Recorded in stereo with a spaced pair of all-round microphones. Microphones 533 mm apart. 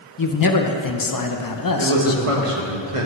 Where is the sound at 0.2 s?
40° left (ahead or behind), 0.6 m.